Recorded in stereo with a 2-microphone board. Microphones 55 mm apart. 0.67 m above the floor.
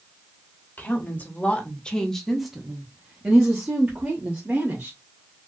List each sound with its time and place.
0.8 s a woman speaking: 40° left (ahead or behind), 1.2 m; by 5.0 s 45° right (ahead or behind), 1.8 m